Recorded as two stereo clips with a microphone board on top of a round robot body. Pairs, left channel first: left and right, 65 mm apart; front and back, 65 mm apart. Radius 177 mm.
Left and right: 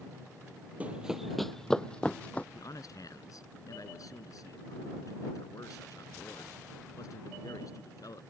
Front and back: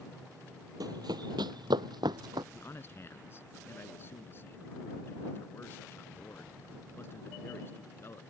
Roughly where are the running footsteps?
Behind.